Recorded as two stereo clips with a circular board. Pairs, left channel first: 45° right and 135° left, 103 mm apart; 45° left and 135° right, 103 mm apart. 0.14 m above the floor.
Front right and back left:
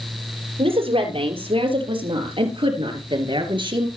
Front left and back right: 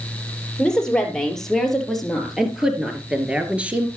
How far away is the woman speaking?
About 4 m.